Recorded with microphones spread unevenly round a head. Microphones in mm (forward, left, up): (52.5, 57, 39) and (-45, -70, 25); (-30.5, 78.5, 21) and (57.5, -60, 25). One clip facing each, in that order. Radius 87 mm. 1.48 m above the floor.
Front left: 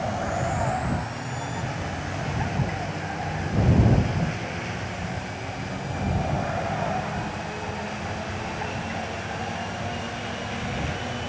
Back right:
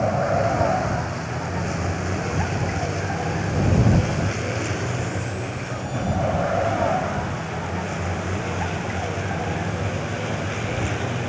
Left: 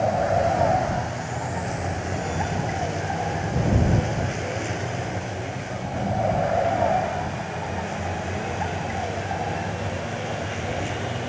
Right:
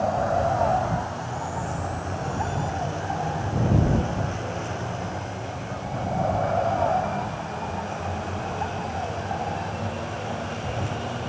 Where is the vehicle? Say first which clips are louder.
Back right 7 dB, left 2 dB; 165° right.